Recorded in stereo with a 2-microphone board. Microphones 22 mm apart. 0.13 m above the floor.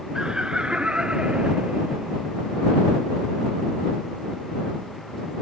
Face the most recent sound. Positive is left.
turn(degrees=-60)  # may be behind; listen again after turning